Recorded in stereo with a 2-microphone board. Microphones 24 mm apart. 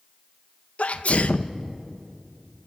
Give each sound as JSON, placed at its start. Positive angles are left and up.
{"t": 0.8, "sound": "a sneeze", "side_deg": 65, "distance_m": 1.0}